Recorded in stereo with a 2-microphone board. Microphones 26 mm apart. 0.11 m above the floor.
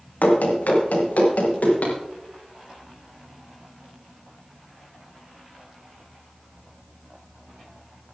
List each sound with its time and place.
0.2 s running footsteps: 80° left, 3.5 m; by 1.9 s 70° left (ahead or behind), 5.5 m